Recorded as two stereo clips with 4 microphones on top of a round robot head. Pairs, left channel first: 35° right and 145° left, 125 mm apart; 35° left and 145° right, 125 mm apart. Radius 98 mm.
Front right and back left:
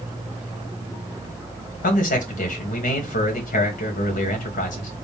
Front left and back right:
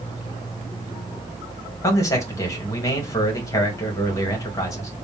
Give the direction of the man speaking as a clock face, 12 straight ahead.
1 o'clock.